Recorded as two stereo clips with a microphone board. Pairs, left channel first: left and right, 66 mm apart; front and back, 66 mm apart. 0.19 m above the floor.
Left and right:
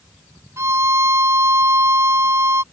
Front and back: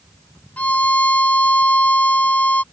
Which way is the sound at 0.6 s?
60° right.